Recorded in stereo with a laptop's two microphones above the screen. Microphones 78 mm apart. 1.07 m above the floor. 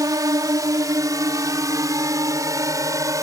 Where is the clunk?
No clunk in this recording.